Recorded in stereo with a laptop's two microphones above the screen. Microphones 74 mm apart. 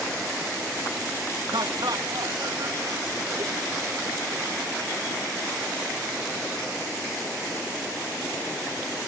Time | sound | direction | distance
1.5 | laughter | 75° right (ahead or behind) | 1.6 m